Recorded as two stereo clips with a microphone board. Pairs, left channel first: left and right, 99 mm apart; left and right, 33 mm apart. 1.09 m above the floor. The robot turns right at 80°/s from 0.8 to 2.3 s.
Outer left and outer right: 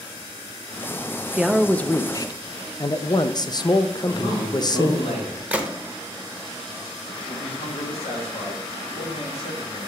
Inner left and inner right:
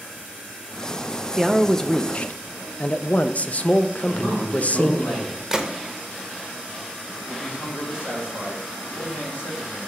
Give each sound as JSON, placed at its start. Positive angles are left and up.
{"t": 1.4, "sound": "a man speaking", "azimuth_deg": -15, "distance_m": 0.5}
{"t": 4.0, "sound": "a man speaking", "side_deg": 75, "distance_m": 3.0}
{"t": 5.5, "sound": "a gunshot", "side_deg": -15, "distance_m": 0.8}
{"t": 7.3, "sound": "a man speaking", "side_deg": 75, "distance_m": 2.0}